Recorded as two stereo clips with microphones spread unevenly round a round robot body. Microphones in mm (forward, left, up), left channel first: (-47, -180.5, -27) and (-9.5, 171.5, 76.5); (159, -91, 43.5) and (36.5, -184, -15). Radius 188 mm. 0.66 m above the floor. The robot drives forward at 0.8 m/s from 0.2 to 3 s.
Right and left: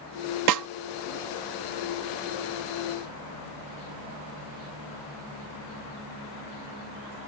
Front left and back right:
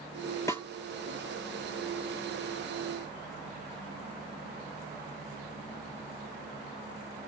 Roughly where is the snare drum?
Behind left.